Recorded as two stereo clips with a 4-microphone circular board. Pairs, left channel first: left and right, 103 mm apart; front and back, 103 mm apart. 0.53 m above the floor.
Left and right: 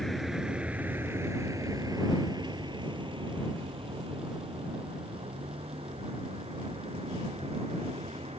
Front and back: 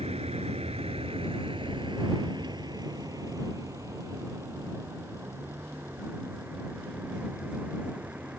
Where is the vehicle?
175° left; by 8.4 s 105° right.